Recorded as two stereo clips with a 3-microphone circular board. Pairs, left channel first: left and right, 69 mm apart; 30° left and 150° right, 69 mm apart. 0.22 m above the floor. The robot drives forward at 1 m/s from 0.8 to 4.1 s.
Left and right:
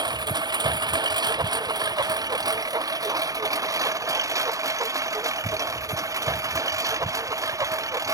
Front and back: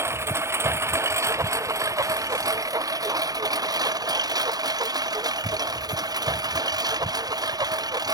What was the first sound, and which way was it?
A lawn mower, 100° right.